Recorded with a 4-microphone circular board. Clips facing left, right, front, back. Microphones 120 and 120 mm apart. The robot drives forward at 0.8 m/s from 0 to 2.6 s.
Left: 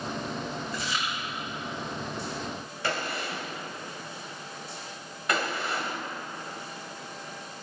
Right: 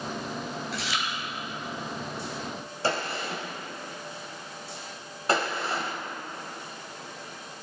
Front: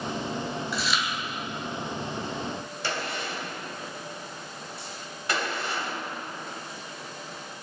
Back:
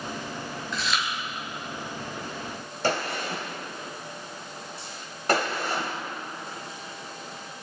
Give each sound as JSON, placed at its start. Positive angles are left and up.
{"t": 0.7, "sound": "chewing", "azimuth_deg": -85, "distance_m": 3.0}
{"t": 2.8, "sound": "a gunshot", "azimuth_deg": -145, "distance_m": 2.5}